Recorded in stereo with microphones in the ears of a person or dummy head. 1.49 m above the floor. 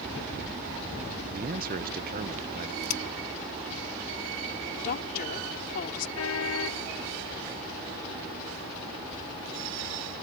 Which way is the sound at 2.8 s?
50° left (ahead or behind).